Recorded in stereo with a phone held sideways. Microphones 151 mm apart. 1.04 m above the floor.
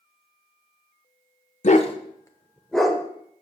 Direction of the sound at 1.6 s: 50° left (ahead or behind).